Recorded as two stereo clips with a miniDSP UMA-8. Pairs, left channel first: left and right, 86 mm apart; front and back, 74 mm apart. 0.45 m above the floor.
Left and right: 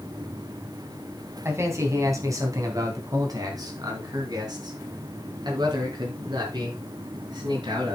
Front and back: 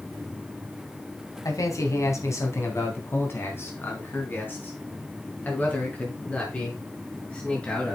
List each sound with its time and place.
1.4 s a man speaking: 35° right, 2.5 m; by 8.0 s 75° right, 6 m